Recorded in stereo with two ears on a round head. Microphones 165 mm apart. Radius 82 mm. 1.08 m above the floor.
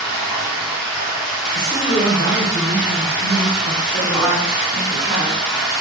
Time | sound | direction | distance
0.0 | running water | 5° right (ahead or behind) | 1.4 m
1.6 | a man speaking | 60° right (ahead or behind) | 1.7 m
3.9 | a woman speaking | 15° right (ahead or behind) | 1.4 m